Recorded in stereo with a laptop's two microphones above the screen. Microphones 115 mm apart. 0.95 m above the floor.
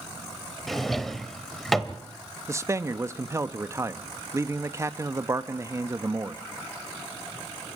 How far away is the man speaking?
About 1.1 m.